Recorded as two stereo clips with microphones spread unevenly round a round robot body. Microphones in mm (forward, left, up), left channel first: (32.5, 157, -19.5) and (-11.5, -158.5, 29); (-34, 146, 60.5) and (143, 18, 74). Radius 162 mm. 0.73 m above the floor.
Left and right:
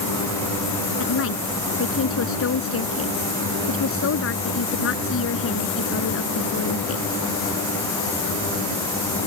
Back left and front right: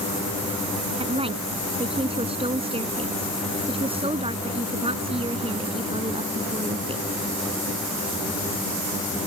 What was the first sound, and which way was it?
A woman speaking, 30° left.